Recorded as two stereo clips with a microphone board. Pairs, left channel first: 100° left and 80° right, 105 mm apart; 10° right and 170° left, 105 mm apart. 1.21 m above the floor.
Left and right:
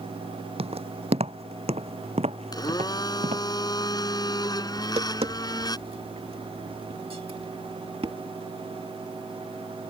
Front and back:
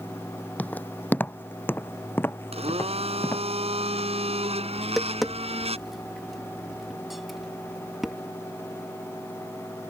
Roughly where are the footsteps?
Right.